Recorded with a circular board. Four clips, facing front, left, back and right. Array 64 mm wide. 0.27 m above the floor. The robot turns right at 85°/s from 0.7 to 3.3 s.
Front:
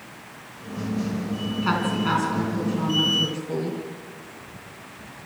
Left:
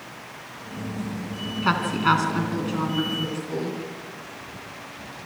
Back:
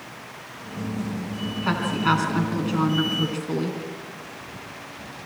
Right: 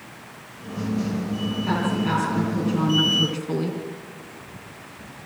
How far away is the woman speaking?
About 3 m.